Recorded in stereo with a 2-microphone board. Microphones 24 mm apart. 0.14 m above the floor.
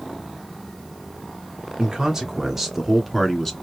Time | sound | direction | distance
1.8 | a man speaking | 25° right (ahead or behind) | 1.2 m